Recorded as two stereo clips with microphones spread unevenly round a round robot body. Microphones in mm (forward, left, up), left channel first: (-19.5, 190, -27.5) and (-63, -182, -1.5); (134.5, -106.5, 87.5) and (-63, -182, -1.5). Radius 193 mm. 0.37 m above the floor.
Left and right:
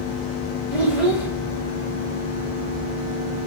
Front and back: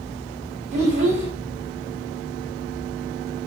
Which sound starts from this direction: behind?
A child speaking, at 0.7 s.